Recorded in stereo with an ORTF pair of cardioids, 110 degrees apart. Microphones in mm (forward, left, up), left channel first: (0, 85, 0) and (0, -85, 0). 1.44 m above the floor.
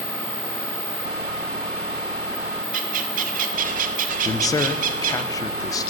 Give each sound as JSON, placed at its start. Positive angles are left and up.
{"t": 2.7, "sound": "a bird", "azimuth_deg": -55, "distance_m": 1.0}
{"t": 4.2, "sound": "a man speaking", "azimuth_deg": 20, "distance_m": 0.9}